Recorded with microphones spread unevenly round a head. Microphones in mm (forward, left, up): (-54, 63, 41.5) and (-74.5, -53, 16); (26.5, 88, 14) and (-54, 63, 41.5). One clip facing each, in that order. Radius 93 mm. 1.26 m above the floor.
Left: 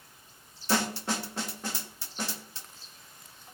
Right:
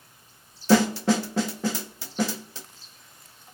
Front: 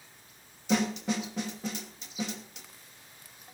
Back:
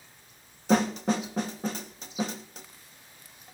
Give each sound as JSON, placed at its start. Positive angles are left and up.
{"t": 0.7, "sound": "a snare drum", "azimuth_deg": -100, "distance_m": 0.9}